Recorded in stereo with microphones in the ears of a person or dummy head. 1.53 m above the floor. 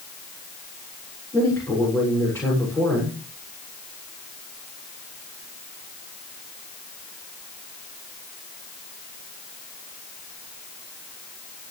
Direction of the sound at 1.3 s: 10° left (ahead or behind).